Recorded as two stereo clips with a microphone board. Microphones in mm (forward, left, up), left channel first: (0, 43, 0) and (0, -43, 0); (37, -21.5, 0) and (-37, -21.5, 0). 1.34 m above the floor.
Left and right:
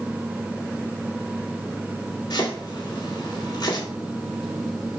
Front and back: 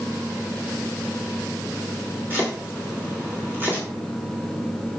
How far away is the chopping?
About 3 m.